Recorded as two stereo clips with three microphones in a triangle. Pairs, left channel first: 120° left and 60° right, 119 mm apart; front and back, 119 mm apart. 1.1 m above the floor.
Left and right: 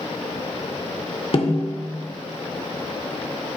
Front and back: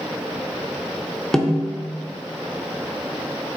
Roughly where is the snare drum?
Left.